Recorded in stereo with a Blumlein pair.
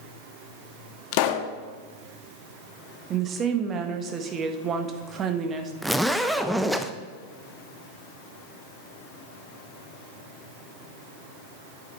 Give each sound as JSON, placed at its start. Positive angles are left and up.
{"t": 1.1, "sound": "a pop", "azimuth_deg": 45, "distance_m": 0.9}
{"t": 3.1, "sound": "a woman speaking", "azimuth_deg": -25, "distance_m": 1.4}
{"t": 5.8, "sound": "a zipper", "azimuth_deg": 0, "distance_m": 0.7}